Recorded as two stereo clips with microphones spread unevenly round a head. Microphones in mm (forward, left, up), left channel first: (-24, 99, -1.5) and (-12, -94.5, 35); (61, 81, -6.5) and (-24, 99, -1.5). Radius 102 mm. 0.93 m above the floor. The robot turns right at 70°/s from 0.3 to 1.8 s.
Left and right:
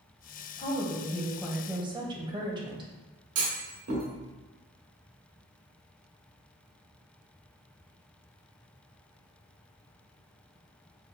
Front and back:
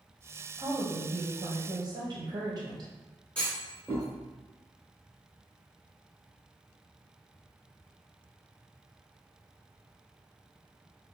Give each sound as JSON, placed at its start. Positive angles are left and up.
{"t": 0.6, "sound": "a woman speaking", "azimuth_deg": 120, "distance_m": 0.7}
{"t": 3.4, "sound": "a clunk", "azimuth_deg": -95, "distance_m": 1.2}